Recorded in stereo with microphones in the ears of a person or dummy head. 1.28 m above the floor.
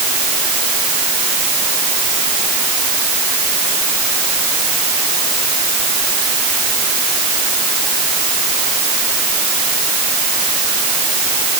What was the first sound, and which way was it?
Only background noise.